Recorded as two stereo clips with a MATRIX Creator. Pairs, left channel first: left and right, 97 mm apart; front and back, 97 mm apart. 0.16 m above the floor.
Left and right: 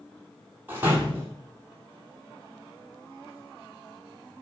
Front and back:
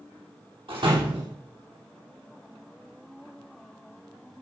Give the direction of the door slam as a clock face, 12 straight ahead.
5 o'clock.